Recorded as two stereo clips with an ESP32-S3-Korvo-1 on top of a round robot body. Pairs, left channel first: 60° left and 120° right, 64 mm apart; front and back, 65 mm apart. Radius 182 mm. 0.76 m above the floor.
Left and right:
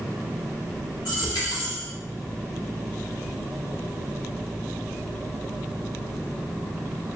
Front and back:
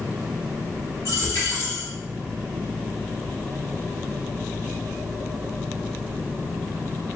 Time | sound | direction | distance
1.1 | a dropped coin | 45° left | 1.8 m